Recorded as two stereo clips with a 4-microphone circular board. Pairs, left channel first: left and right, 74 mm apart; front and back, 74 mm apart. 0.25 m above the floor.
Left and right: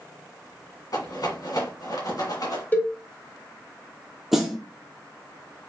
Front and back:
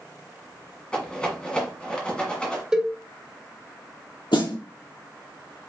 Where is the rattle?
75° left, 1.7 m.